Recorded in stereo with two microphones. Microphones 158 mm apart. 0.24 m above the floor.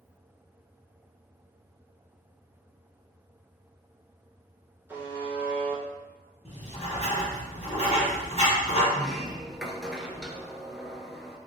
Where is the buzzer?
15° right (ahead or behind), 1.1 m.